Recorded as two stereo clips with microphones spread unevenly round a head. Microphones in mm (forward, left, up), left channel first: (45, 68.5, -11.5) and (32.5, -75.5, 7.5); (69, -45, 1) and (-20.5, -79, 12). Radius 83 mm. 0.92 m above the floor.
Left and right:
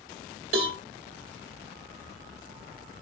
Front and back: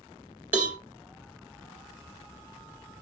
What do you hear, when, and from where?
0.5 s a cowbell: 85° right, 1.7 m